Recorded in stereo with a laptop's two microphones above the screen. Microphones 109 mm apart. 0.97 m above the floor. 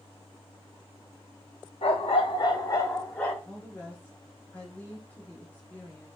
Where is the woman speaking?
15° left (ahead or behind), 0.9 m.